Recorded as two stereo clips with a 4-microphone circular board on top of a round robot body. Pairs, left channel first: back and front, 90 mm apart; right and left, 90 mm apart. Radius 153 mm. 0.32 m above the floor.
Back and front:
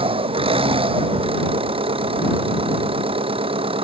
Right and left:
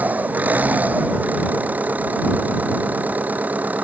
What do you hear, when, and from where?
0.0 s an engine running: 15° left